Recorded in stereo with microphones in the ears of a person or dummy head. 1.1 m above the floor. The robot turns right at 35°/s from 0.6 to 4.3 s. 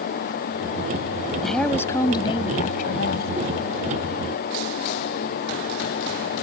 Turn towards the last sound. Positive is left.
turn(degrees=100)